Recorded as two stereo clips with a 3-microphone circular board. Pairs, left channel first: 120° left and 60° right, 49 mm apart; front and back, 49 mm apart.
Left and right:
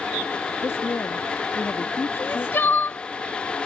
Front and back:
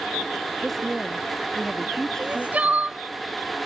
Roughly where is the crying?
Behind left.